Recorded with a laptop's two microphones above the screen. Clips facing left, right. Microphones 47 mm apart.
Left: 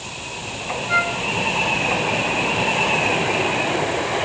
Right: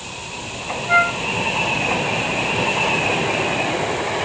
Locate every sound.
0.9 s a flute: 15° right (ahead or behind), 1.6 m